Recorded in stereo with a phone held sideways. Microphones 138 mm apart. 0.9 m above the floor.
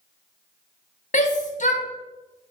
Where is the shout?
65° left (ahead or behind), 0.8 m.